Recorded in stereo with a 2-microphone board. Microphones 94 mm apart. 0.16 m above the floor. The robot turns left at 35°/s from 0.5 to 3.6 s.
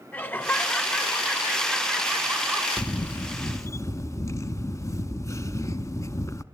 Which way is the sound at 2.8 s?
15° left (ahead or behind).